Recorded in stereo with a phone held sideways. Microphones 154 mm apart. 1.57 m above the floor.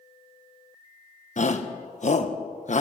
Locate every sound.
1.4 s a shout: 50° left (ahead or behind), 1.7 m